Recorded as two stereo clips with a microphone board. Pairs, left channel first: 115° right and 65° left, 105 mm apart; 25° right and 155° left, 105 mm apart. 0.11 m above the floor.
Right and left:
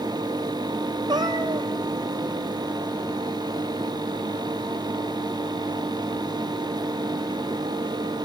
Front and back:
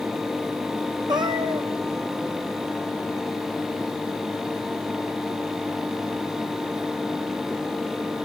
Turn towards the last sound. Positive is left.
turn(degrees=115)